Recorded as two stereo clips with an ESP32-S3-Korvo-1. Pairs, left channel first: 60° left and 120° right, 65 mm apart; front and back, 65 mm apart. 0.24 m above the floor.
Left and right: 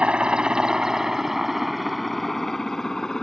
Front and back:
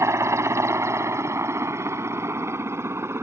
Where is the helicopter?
175° left; by 3.2 s 140° left.